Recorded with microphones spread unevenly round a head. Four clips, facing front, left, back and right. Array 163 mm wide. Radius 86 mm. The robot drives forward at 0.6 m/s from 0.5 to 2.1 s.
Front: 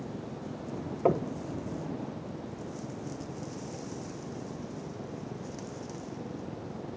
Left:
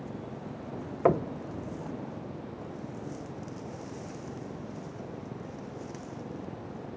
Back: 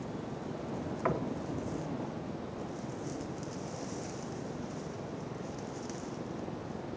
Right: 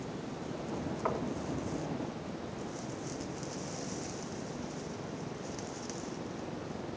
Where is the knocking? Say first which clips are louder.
Left 11 dB, front 7 dB; 60° left, 0.9 m; by 1.3 s 65° left, 0.8 m.